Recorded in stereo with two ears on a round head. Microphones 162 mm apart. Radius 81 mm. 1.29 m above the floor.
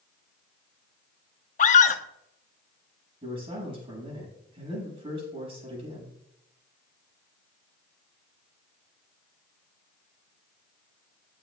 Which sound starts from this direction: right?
A man speaking, at 3.2 s.